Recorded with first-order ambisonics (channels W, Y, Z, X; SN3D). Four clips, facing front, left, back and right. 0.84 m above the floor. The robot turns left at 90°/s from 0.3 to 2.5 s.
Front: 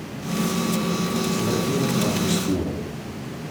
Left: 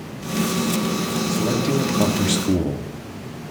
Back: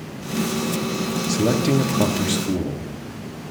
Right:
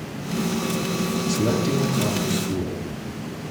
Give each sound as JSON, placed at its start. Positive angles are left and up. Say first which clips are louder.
{"t": 1.3, "sound": "a man speaking", "louder": "left 1 dB, back 4 dB", "azimuth_deg": -155, "distance_m": 1.7}